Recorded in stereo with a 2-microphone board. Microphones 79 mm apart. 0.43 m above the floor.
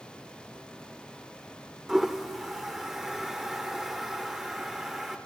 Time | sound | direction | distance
1.9 | a toilet flushing | 5° right (ahead or behind) | 1.0 m